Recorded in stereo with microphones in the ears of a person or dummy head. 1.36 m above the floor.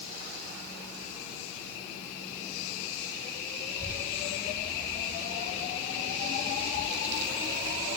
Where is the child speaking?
10° right (ahead or behind), 1.8 m; by 7.9 s 70° right (ahead or behind), 2.5 m.